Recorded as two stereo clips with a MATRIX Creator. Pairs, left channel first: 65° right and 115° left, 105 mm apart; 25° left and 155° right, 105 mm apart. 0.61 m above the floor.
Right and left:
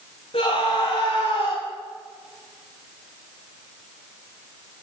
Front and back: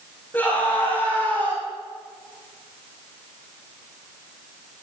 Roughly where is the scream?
Ahead right.